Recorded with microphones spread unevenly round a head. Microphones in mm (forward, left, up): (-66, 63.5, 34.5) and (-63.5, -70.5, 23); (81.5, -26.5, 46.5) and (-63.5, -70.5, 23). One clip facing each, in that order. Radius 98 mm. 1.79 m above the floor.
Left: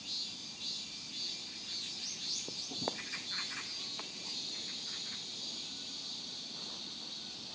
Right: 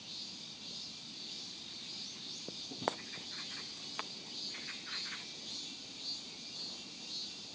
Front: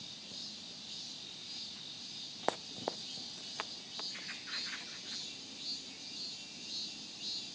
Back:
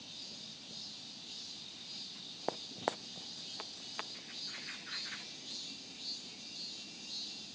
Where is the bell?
I don't hear a bell.